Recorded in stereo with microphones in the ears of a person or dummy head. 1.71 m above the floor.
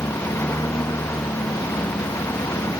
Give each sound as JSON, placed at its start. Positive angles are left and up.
{"t": 0.0, "sound": "a lawn mower", "side_deg": 10}